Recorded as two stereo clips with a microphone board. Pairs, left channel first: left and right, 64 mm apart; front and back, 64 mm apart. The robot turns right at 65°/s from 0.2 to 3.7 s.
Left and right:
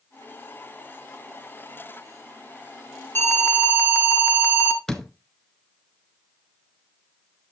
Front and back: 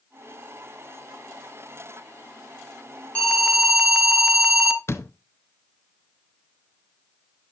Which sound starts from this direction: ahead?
A door slam, at 4.9 s.